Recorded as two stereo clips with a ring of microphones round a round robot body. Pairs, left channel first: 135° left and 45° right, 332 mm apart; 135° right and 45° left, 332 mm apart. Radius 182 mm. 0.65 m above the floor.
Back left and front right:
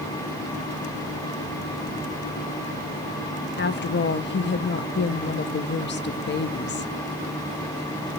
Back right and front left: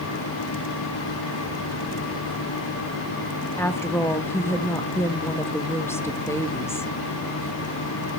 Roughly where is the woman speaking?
Behind left.